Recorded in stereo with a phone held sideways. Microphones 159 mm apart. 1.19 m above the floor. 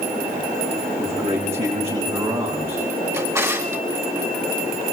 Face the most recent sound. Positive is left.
turn(degrees=-20)  # may be behind; listen again after turning